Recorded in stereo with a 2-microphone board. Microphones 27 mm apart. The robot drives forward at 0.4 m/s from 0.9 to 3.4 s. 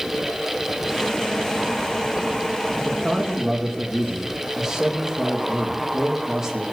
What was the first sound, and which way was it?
A man speaking, 25° right (ahead or behind).